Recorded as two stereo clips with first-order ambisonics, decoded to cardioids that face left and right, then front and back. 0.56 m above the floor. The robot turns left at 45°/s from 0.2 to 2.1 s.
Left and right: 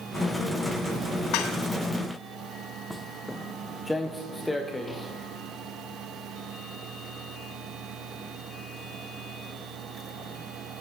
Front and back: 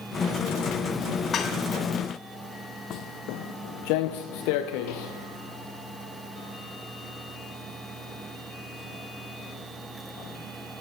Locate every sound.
1.3 s dishes clattering: 65° left, 2.5 m; by 1.6 s 55° left, 2.5 m
2.9 s footsteps: 5° left, 0.7 m